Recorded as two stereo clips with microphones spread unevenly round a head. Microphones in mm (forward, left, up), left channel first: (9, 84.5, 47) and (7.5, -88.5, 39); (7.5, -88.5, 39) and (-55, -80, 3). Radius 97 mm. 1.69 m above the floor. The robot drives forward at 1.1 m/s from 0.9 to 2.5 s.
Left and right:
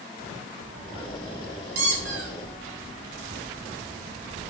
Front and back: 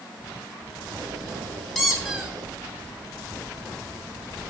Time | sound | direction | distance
1.8 | a squeak | 65° right | 2 m